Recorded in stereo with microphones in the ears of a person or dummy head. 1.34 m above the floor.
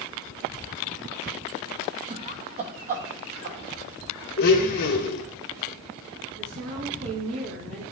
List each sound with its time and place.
2.1 s laughter: 25° right (ahead or behind), 0.6 m; by 3.6 s 45° right (ahead or behind), 1.3 m
4.4 s a blender: 55° left (ahead or behind), 1.0 m
6.4 s a woman speaking: 50° right (ahead or behind), 1.9 m